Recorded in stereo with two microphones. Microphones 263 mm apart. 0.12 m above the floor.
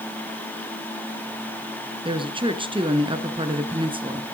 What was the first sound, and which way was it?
A woman speaking, 20° right (ahead or behind).